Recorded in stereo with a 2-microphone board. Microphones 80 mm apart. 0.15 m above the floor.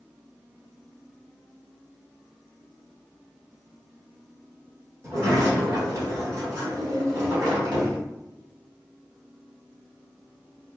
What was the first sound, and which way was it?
A sliding door, 40° right (ahead or behind).